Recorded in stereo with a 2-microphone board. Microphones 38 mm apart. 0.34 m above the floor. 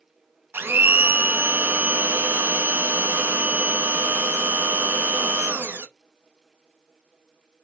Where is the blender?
85° right, 0.8 m.